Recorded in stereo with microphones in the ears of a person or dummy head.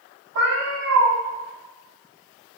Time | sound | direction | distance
0.3 | a cat meowing | 75° right (ahead or behind) | 1.8 m